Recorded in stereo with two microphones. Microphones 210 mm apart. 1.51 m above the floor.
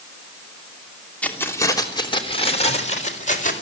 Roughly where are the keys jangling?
Centre.